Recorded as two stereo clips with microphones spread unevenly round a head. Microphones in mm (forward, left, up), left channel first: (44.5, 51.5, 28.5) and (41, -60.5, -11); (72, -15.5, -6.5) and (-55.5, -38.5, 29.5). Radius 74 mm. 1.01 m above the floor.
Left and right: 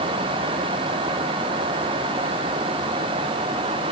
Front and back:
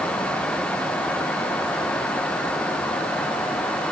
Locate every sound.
Only background noise.